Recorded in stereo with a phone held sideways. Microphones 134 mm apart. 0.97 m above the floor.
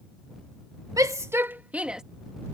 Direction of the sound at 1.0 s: 30° right (ahead or behind).